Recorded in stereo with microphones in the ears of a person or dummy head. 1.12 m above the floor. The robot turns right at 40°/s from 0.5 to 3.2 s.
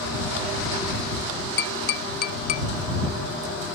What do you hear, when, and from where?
1.6 s tapping: 70° left (ahead or behind); by 2.7 s 45° left (ahead or behind)